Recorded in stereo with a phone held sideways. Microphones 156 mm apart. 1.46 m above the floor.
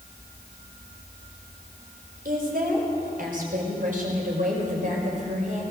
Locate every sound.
2.2 s a woman speaking: 70° right (ahead or behind), 5.5 m; by 5.6 s 55° right (ahead or behind), 6.5 m